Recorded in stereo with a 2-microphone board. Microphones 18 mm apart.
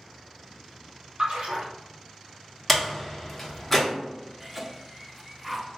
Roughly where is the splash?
Right.